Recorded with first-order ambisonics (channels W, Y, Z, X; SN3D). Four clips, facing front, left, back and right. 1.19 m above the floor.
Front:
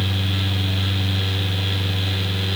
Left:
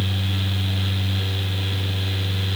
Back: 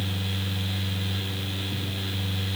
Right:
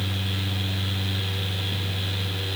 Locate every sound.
Only background noise.